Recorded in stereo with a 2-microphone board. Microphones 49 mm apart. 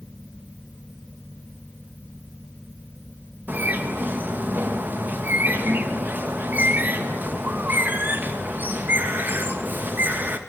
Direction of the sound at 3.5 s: 40° right (ahead or behind).